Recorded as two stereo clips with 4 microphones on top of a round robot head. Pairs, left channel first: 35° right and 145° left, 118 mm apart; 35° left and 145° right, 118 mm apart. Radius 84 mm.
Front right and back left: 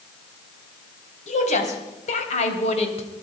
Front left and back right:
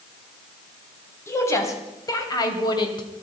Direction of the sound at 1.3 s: 30° right.